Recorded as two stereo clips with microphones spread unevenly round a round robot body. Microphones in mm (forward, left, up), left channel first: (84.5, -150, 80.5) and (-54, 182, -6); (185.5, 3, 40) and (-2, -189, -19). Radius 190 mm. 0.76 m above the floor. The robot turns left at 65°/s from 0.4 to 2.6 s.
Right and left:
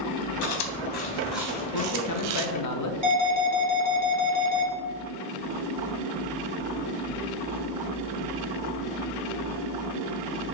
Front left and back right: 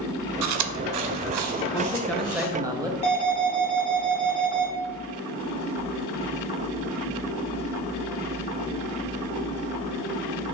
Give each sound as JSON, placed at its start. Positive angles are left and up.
{"t": 0.4, "sound": "chewing", "azimuth_deg": -95, "distance_m": 0.5}
{"t": 1.7, "sound": "a man speaking", "azimuth_deg": -30, "distance_m": 0.7}
{"t": 3.0, "sound": "an alarm", "azimuth_deg": 115, "distance_m": 1.1}